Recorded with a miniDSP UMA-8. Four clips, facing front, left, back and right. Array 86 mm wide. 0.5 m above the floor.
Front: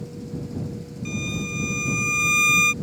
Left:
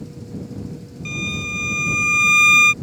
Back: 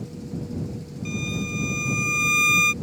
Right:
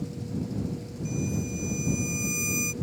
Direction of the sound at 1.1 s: 85° left.